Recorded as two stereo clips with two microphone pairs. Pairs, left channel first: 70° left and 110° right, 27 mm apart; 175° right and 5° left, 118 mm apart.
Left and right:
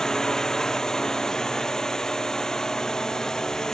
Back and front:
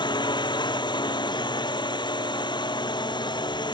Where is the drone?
135° left.